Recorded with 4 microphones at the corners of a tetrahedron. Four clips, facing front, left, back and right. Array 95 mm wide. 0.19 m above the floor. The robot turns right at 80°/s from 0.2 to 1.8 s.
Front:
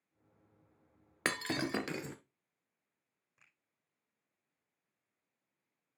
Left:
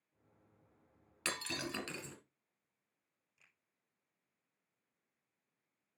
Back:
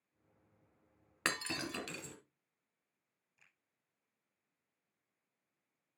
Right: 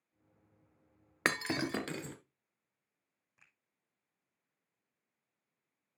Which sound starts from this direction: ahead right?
A finger snap, at 3.4 s.